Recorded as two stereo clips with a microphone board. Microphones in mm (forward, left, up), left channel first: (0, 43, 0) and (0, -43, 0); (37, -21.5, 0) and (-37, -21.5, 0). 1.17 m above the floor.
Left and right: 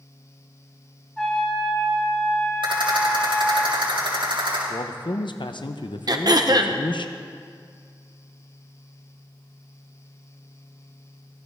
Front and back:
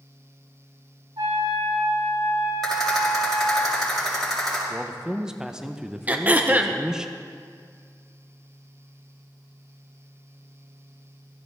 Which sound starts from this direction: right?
A rattle, at 2.6 s.